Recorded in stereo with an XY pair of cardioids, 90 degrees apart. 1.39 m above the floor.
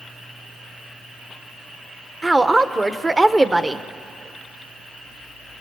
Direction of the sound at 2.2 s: 20° right.